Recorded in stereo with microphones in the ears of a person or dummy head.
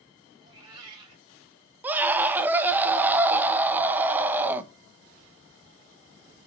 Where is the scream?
10° right (ahead or behind), 1.1 m.